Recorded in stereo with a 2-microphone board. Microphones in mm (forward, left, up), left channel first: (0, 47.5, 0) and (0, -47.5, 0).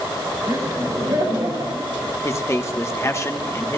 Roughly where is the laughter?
Right.